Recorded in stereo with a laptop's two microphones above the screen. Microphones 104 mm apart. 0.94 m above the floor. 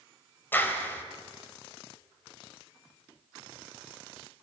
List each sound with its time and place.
0.5 s a clap: 20° left (ahead or behind), 4.5 m